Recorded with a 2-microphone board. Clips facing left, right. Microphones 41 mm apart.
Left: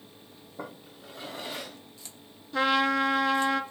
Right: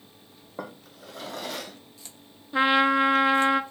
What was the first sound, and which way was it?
A drawer, 80° right.